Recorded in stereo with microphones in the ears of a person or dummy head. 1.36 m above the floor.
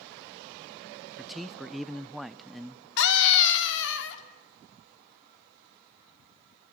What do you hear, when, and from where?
1.2 s a man speaking: 5° right (ahead or behind), 0.6 m
3.0 s a scream: 75° left (ahead or behind), 2.5 m